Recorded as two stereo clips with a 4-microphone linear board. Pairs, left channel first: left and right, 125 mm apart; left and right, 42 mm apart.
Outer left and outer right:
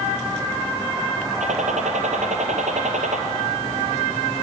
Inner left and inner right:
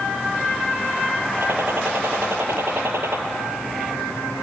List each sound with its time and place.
1.4 s a gunshot: 70° right (ahead or behind), 3 m